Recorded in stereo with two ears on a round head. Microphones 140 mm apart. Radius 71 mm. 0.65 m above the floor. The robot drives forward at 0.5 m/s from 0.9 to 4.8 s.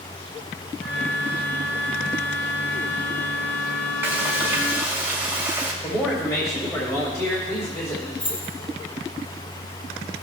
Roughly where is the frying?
Centre.